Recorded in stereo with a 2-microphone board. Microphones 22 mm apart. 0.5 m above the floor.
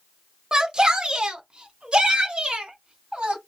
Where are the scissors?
I don't hear scissors.